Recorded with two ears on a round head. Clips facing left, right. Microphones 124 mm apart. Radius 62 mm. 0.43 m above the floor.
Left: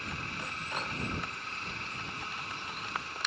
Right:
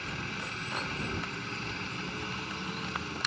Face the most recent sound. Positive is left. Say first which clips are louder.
# right 2 dB
turn(degrees=-65)  # may be behind; listen again after turning